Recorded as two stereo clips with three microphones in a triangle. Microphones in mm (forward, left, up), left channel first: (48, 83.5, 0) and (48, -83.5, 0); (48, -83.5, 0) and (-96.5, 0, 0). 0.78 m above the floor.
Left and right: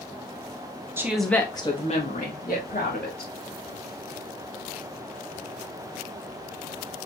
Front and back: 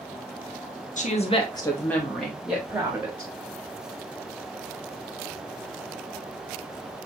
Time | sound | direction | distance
1.0 | a woman speaking | 20° right | 0.9 m